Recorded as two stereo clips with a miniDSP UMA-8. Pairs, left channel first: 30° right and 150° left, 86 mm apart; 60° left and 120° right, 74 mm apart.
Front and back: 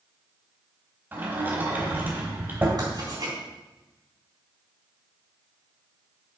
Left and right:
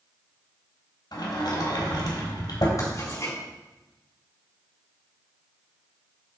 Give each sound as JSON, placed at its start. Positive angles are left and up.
{"t": 1.1, "sound": "a sliding door", "azimuth_deg": 80, "distance_m": 3.0}
{"t": 2.8, "sound": "writing", "azimuth_deg": 105, "distance_m": 3.5}